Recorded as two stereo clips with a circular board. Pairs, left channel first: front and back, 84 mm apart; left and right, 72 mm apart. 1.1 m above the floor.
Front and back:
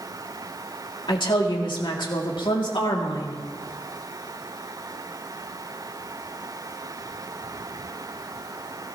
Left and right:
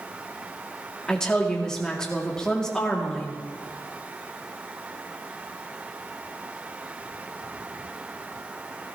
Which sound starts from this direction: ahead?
A woman speaking, at 1.1 s.